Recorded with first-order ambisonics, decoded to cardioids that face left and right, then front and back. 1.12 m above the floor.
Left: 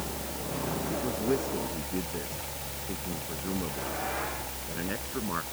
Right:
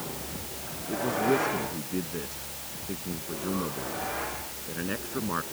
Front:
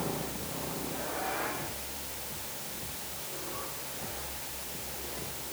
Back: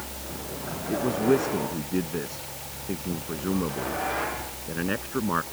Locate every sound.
0.9 s a man speaking: 175° right